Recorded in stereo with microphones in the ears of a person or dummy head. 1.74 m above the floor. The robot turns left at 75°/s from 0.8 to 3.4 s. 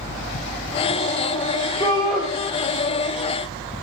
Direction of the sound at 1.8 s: 25° left.